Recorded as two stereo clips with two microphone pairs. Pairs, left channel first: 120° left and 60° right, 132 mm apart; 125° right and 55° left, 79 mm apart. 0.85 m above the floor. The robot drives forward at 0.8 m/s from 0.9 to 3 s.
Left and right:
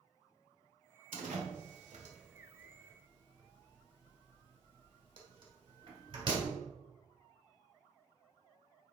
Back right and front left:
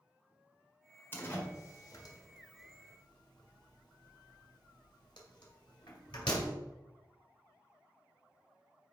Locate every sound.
1.1 s a door slam: 65° right, 1.9 m; by 6.5 s 110° right, 1.8 m